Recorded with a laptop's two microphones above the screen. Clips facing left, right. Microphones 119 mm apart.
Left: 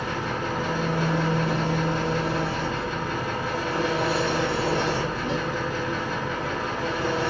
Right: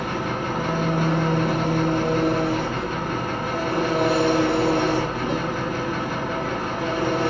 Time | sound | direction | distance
0.0 | an engine running | 55° right (ahead or behind) | 1.0 m